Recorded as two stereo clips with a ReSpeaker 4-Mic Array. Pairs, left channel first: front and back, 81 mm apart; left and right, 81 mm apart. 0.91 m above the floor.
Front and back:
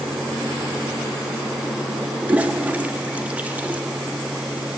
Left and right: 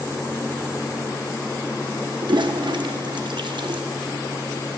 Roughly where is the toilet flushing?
Right.